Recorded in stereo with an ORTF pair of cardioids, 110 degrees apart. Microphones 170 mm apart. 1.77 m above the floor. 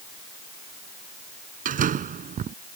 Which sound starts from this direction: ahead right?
A door slam, at 1.6 s.